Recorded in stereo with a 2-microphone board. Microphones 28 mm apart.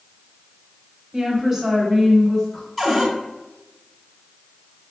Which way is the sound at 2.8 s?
5° left (ahead or behind).